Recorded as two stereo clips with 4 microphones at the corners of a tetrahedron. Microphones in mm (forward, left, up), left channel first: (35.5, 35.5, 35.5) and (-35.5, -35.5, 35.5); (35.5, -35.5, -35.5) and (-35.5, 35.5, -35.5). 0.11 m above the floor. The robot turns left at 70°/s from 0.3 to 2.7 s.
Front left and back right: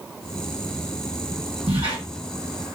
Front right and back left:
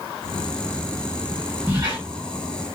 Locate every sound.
1.7 s a squeak: 155° right, 1.9 m; by 2.0 s straight behind, 1.9 m